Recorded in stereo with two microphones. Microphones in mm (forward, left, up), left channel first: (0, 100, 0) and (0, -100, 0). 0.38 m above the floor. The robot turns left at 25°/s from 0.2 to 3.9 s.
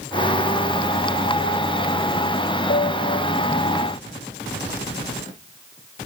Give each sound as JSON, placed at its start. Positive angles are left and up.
{"t": 2.7, "sound": "a piano", "side_deg": 65, "distance_m": 0.9}